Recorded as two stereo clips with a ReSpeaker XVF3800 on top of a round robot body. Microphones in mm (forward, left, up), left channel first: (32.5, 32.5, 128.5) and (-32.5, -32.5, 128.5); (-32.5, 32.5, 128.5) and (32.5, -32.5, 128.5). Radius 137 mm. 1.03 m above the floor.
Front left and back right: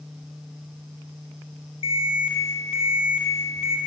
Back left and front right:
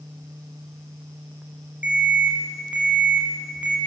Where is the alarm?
30° left, 8 m.